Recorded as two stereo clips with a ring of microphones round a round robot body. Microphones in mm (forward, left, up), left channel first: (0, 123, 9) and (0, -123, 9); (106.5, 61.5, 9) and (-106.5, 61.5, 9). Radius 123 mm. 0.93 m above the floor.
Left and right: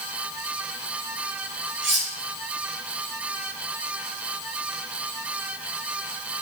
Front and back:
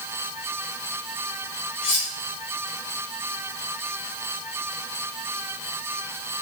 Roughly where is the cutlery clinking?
Ahead right.